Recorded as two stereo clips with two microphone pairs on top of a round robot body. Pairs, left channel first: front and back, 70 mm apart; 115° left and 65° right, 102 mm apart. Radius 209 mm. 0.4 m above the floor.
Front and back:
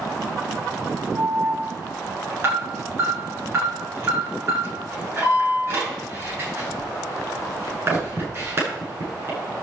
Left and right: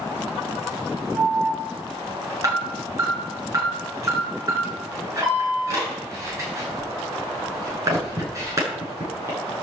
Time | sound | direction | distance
1.1 | an alarm | 125° right | 8.5 m